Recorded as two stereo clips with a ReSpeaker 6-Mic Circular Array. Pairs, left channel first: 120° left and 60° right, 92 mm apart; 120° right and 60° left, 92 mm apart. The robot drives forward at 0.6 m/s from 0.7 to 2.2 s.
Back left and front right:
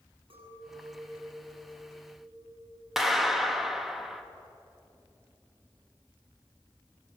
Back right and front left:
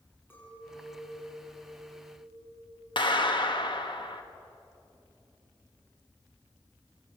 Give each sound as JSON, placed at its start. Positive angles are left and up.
{"t": 0.3, "sound": "a clink", "azimuth_deg": -55, "distance_m": 8.5}
{"t": 3.0, "sound": "a clap", "azimuth_deg": -145, "distance_m": 1.8}